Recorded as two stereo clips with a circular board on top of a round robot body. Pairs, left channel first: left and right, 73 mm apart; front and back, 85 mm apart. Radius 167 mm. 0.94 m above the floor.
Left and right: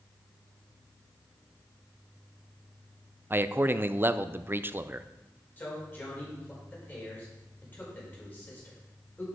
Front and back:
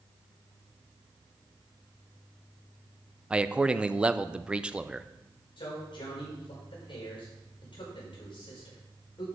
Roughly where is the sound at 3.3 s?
Behind right.